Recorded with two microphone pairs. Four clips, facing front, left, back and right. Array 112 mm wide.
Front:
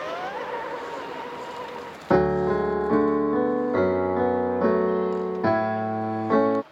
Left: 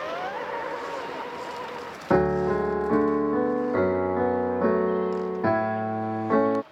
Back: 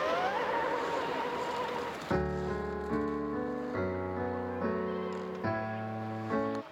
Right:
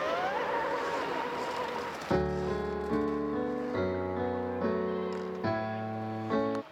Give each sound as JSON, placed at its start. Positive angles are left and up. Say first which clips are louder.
{"t": 2.1, "sound": "a piano", "louder": "left 9 dB, front 13 dB", "azimuth_deg": 35}